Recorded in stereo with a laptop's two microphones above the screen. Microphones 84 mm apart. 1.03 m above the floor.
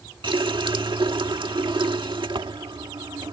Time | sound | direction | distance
0.2 | a running tap | 80° right | ?